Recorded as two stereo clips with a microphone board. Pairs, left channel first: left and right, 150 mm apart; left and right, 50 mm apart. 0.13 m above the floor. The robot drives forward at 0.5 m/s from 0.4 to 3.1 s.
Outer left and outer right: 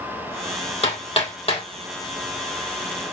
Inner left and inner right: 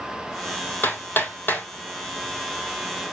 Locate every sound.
0.8 s hammering: 40° left (ahead or behind), 4 m; by 1.7 s 35° left (ahead or behind), 4 m